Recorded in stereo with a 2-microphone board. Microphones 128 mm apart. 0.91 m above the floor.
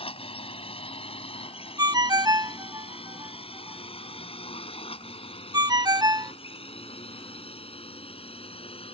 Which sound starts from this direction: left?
A drone, at 0.0 s.